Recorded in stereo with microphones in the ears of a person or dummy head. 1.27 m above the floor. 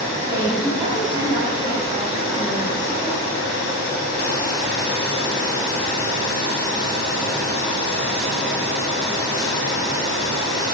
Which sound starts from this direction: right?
A woman speaking, at 0.2 s.